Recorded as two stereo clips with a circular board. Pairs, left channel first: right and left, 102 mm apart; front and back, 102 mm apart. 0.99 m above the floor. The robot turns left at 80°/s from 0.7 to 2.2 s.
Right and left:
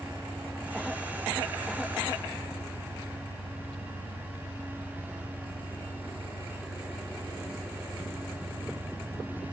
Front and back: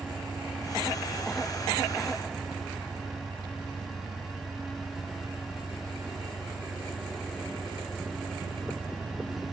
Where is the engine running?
70° left; by 9.5 s 50° right.